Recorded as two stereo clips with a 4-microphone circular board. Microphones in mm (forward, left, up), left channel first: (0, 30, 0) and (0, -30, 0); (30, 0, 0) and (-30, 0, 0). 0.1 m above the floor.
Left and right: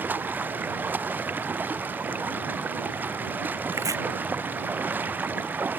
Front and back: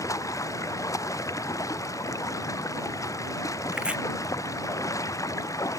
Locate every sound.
0.0 s running water: 30° right
3.7 s chopping: 105° right